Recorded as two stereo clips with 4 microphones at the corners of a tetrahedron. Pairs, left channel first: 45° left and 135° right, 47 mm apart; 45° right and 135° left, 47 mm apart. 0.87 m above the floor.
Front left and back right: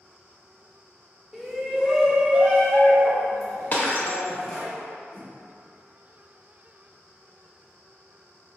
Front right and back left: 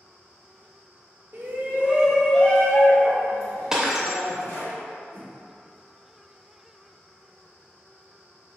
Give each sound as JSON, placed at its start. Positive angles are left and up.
{"t": 1.3, "sound": "a shout", "azimuth_deg": 145, "distance_m": 0.8}
{"t": 3.7, "sound": "breaking glass", "azimuth_deg": 60, "distance_m": 0.6}
{"t": 5.1, "sound": "a whoosh", "azimuth_deg": -5, "distance_m": 1.6}